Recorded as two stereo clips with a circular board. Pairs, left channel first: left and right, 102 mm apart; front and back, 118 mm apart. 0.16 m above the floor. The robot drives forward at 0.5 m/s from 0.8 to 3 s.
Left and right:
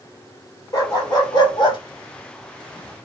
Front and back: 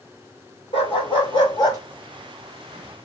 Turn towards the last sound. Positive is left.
turn(degrees=85)